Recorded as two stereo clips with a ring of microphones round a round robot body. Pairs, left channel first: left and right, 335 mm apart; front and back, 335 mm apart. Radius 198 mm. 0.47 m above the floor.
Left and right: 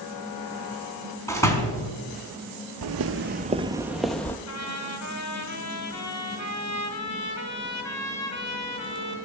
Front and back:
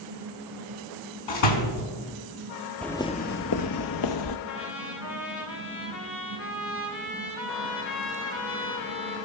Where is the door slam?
10° left, 4 m.